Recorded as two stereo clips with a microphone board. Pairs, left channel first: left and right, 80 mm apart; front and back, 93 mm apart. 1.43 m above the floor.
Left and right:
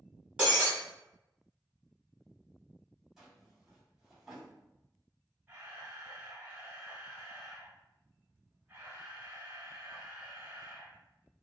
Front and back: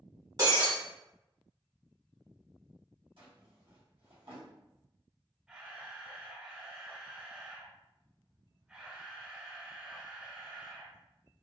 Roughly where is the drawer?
Behind.